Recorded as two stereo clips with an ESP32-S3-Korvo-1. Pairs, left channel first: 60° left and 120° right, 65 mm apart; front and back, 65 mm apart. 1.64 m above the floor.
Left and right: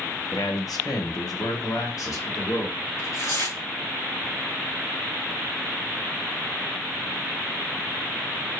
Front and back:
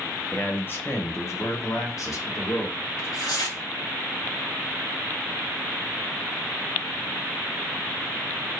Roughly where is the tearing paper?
Ahead.